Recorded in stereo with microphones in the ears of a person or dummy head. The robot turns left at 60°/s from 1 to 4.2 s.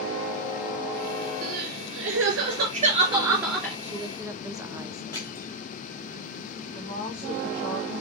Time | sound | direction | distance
1.4 | crying | 50° right | 3.5 m
3.8 | a woman speaking | 35° right (ahead or behind) | 0.9 m
5.1 | crushing | 15° left (ahead or behind) | 5 m
6.7 | a woman speaking | 30° left (ahead or behind) | 4 m